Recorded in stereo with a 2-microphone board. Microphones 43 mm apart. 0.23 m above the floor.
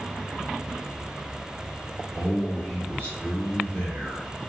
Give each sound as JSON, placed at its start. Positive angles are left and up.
{"t": 2.1, "sound": "a man speaking", "side_deg": -30, "distance_m": 1.9}